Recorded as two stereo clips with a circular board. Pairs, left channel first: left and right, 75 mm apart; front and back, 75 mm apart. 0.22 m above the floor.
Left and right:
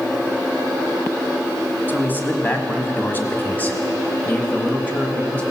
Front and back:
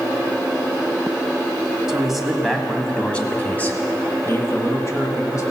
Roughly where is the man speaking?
Left.